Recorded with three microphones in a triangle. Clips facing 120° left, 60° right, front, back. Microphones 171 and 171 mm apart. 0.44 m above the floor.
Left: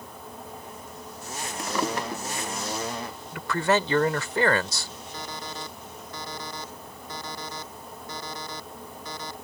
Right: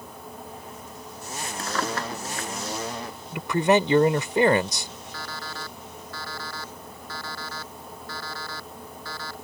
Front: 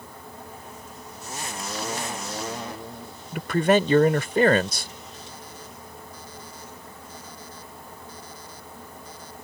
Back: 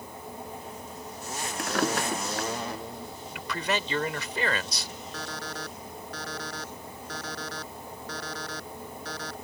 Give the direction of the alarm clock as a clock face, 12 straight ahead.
6 o'clock.